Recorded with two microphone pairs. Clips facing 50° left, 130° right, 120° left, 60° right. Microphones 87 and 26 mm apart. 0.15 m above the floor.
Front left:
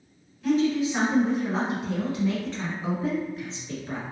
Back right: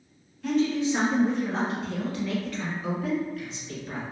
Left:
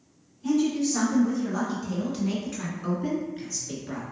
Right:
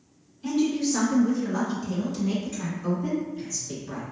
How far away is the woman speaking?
About 1.3 m.